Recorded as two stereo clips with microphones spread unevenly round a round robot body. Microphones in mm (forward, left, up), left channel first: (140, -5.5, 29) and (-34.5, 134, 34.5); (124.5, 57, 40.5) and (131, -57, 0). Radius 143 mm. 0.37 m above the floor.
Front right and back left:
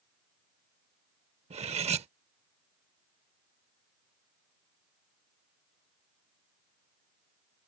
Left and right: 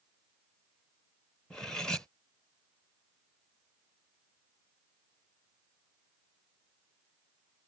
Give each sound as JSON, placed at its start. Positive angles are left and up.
{"t": 1.5, "sound": "cutlery clinking", "azimuth_deg": -165}